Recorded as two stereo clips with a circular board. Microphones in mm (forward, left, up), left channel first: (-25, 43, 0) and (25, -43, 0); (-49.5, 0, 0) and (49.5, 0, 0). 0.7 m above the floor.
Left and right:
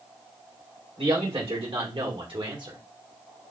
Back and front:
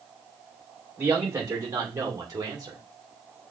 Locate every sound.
1.0 s a man speaking: 60° right, 3 m; by 2.8 s 35° right, 1.5 m